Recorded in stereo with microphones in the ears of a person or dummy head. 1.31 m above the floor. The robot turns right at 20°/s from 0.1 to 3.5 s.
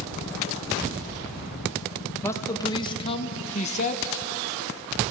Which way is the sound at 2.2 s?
15° left (ahead or behind).